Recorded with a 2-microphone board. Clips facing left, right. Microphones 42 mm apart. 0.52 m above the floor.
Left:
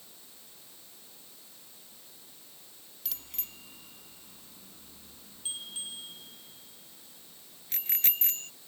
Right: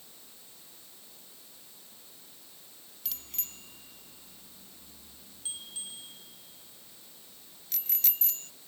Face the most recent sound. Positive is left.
turn(degrees=40)  # may be behind; listen again after turning